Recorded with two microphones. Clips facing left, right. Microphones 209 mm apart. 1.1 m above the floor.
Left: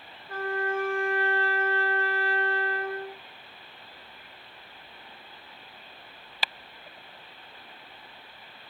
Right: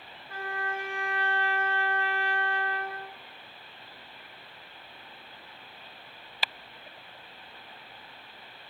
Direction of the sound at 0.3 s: 55° left (ahead or behind).